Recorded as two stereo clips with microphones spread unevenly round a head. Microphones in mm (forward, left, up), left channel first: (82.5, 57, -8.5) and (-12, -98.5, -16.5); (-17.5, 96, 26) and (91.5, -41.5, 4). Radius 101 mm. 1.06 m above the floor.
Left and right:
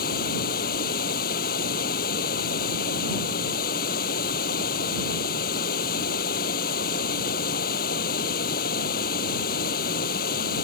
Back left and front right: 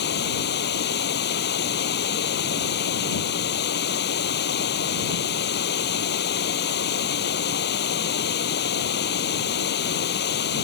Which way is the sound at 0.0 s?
105° left.